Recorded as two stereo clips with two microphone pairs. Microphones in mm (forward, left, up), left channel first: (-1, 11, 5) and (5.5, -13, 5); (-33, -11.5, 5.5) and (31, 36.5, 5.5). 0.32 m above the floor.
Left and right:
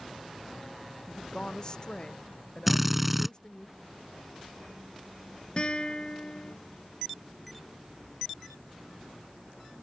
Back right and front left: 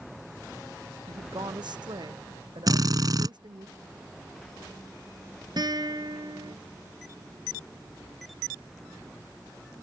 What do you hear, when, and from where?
1.1 s a woman speaking: 45° left
2.7 s a drill: 5° left
5.6 s a guitar: 55° left